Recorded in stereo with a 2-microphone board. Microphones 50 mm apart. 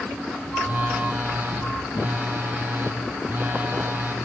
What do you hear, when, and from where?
0.6 s a phone buzzing: 35° right (ahead or behind), 3 m